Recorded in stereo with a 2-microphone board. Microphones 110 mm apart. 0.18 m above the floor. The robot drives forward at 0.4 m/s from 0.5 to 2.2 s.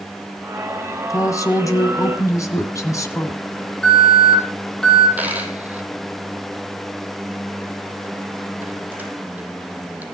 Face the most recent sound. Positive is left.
turn(degrees=-15)  # may be behind; listen again after turning